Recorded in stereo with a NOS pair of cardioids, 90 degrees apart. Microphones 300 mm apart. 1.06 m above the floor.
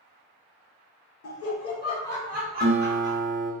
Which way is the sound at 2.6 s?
40° right.